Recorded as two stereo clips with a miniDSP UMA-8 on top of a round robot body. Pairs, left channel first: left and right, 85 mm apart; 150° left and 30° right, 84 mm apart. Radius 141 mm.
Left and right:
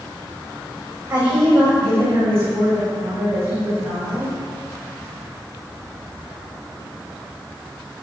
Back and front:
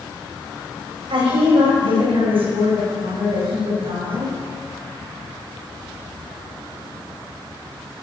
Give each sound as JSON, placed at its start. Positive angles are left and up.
{"t": 1.1, "sound": "a woman speaking", "azimuth_deg": -15, "distance_m": 6.0}